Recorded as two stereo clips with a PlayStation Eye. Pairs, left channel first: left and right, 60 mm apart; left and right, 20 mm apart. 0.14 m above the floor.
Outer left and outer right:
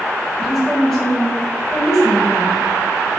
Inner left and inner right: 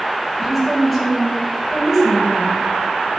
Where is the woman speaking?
5° left (ahead or behind), 2.5 m.